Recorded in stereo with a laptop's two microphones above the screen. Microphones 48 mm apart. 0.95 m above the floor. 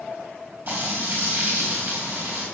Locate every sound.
0.7 s frying: 45° right (ahead or behind), 4 m